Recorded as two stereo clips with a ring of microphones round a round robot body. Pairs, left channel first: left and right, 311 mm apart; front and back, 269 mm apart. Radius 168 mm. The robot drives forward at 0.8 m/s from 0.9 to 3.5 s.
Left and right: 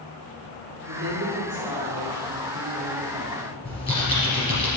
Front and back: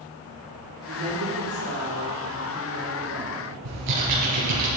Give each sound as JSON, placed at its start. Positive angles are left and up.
{"t": 0.9, "sound": "a woman speaking", "azimuth_deg": -140, "distance_m": 3.0}
{"t": 3.6, "sound": "typing on a keyboard", "azimuth_deg": 165, "distance_m": 4.0}